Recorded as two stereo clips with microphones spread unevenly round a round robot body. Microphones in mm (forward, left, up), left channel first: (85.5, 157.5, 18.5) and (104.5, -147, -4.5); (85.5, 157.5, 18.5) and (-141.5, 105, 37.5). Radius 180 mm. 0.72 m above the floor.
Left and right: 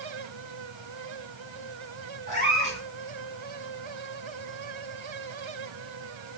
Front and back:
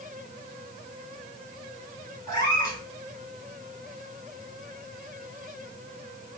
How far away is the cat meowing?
About 4 m.